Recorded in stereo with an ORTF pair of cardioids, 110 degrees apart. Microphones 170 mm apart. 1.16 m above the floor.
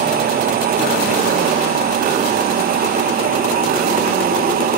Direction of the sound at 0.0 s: 60° right.